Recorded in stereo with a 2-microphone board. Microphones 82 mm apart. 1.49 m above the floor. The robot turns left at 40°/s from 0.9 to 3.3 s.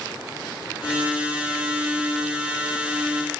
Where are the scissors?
I don't hear scissors.